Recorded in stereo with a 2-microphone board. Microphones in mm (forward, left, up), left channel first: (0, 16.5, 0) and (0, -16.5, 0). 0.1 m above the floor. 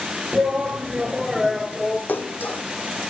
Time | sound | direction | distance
0.3 | a shout | 30° right (ahead or behind) | 1.7 m
2.1 | a splash | 75° left (ahead or behind) | 2 m